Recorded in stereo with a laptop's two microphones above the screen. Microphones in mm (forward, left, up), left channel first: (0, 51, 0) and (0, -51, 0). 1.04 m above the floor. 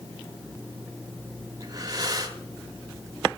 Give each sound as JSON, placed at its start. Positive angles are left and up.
{"t": 1.6, "sound": "breathing", "side_deg": -40, "distance_m": 1.1}